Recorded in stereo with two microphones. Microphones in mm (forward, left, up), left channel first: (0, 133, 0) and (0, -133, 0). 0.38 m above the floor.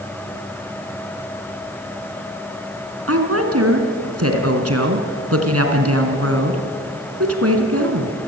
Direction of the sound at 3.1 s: 65° right (ahead or behind).